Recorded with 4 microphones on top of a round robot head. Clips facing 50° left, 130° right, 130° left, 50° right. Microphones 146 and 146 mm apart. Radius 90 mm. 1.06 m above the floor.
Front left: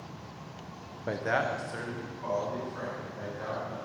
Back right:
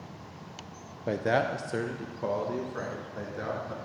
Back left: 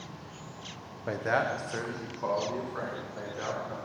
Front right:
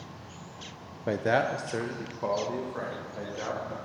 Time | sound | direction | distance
1.1 | a man speaking | 70° right | 0.6 m